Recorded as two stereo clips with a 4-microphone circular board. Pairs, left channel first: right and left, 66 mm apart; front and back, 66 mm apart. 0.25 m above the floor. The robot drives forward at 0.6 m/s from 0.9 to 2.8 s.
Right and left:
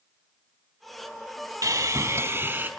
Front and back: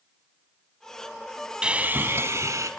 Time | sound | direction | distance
1.6 | sawing | 105° left | 0.6 m